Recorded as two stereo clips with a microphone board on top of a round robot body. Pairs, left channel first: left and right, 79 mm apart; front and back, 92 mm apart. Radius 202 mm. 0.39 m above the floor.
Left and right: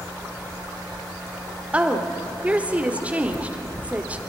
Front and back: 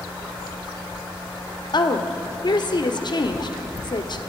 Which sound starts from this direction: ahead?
A woman speaking, at 1.7 s.